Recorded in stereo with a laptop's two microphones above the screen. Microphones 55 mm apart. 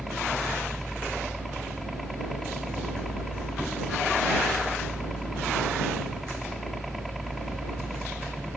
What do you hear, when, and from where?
0.0 s a helicopter: centre (ahead or behind)